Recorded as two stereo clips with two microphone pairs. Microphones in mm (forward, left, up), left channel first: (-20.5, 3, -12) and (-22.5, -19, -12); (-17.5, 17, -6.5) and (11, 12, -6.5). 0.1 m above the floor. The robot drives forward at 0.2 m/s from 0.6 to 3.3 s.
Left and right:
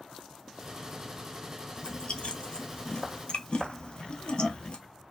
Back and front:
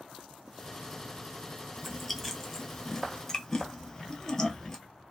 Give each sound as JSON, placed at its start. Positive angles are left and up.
{"t": 1.8, "sound": "chewing", "azimuth_deg": 80, "distance_m": 0.8}